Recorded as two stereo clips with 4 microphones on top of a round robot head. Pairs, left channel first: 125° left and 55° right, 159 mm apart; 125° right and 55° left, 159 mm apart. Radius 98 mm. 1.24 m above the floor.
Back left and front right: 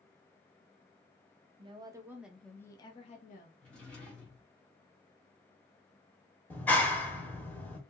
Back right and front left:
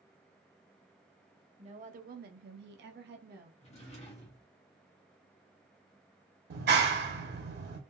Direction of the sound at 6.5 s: 45° left.